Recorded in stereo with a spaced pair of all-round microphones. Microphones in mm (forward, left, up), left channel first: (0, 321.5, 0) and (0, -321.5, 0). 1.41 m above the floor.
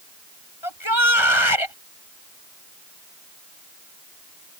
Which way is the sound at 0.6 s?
45° left (ahead or behind).